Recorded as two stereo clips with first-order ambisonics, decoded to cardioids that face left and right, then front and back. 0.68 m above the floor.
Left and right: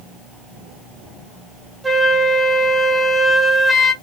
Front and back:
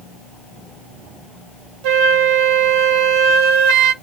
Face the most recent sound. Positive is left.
turn(degrees=-175)